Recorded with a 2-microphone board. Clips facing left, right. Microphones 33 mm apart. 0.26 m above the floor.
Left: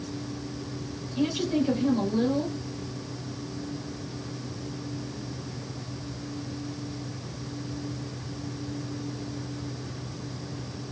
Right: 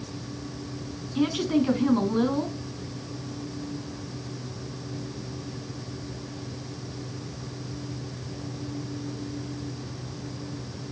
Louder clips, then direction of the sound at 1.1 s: Right 2 dB; 55° right (ahead or behind).